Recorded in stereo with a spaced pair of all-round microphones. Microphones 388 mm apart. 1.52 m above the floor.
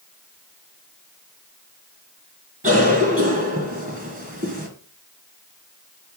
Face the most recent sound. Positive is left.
turn(degrees=-35)  # may be behind; listen again after turning